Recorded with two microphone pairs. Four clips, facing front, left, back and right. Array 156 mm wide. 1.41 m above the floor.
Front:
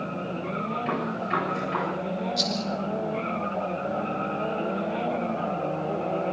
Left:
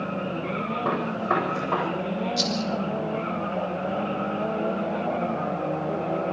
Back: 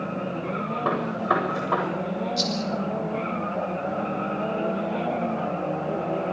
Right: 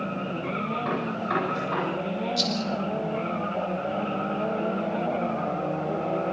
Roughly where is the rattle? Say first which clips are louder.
Left 1 dB, back 2 dB; left.